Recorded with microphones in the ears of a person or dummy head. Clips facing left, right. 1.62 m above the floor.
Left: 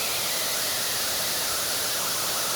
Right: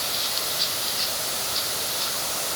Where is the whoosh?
No whoosh in this recording.